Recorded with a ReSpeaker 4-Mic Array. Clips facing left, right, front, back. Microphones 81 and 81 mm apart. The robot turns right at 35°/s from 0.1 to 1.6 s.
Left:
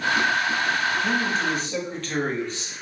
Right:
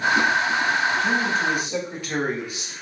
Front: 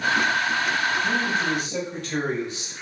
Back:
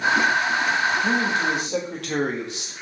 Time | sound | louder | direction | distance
1.0 | a man speaking | right 2 dB, back 2 dB | 170° left | 1.6 m